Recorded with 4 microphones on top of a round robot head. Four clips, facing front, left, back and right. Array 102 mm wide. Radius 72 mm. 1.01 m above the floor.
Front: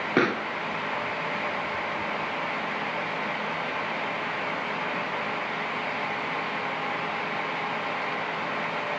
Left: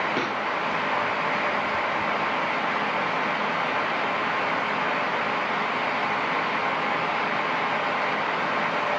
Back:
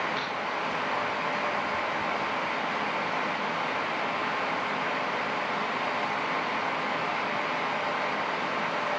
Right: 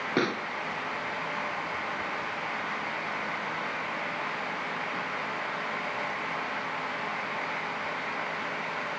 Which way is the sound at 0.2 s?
15° right.